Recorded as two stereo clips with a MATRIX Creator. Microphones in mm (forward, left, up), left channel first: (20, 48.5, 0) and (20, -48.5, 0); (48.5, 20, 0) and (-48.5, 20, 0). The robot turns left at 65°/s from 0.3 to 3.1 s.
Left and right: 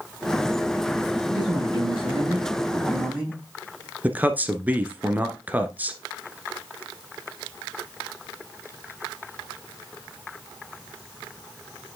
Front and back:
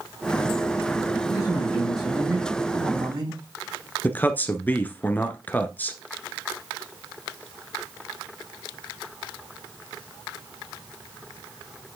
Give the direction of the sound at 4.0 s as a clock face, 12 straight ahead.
1 o'clock.